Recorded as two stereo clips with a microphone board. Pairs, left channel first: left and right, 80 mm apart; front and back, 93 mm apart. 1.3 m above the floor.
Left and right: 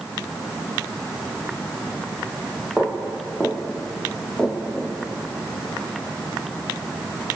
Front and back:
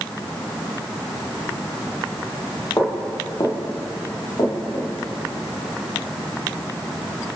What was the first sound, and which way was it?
Footsteps, 10° right.